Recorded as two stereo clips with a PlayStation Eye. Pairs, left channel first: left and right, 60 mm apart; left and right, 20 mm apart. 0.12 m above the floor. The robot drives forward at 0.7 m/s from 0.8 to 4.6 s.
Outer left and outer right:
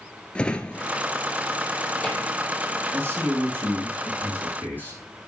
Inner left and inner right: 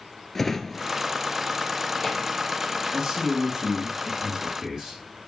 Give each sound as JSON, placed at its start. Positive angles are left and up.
{"t": 0.3, "sound": "a drawer", "side_deg": 15, "distance_m": 0.8}
{"t": 2.9, "sound": "a man speaking", "side_deg": -40, "distance_m": 4.0}